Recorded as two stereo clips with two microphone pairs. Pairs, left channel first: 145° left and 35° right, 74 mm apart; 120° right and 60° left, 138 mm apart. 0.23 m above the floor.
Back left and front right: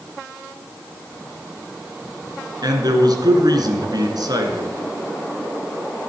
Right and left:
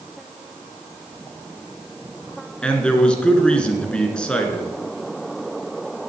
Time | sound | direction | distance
2.6 | a man speaking | 40° right | 2 m